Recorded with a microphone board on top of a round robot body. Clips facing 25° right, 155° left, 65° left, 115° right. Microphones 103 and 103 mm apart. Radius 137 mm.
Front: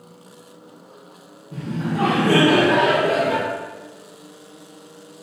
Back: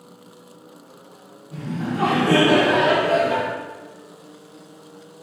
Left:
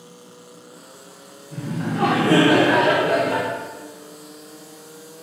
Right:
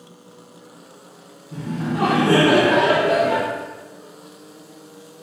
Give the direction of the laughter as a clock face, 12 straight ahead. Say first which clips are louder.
Front 1 dB, right 1 dB; 2 o'clock.